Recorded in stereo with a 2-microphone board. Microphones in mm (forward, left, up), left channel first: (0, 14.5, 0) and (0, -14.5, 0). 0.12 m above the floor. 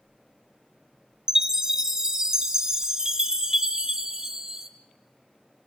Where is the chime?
25° right (ahead or behind), 1.7 m.